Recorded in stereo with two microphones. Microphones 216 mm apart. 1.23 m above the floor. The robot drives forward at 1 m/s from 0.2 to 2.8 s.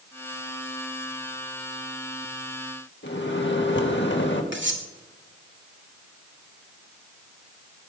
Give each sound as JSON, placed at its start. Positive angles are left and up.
{"t": 3.0, "sound": "a microwave", "side_deg": 65, "distance_m": 1.6}
{"t": 4.5, "sound": "cutlery clinking", "side_deg": -65, "distance_m": 1.7}